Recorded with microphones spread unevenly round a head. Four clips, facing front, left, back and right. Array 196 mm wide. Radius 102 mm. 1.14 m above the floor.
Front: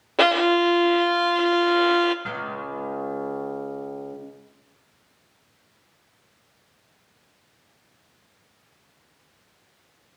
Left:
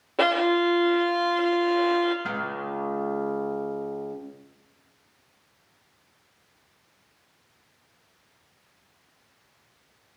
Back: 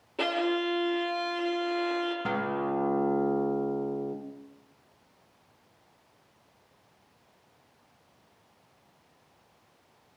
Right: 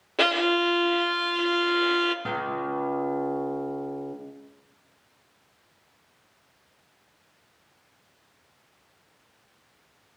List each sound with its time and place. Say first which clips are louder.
0.2 s a violin: left 2 dB, front 10 dB; 15° left, 0.8 m
2.2 s a guitar: right 2 dB, back 2 dB; 145° right, 1.5 m